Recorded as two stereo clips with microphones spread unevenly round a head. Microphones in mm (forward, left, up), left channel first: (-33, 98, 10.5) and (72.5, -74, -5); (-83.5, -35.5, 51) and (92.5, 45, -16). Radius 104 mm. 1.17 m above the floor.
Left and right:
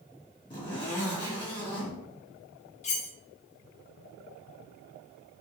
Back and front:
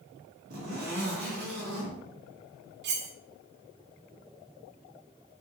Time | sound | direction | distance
0.5 | a zipper | 55° left | 2.5 m
2.8 | cutlery clinking | 70° left | 0.7 m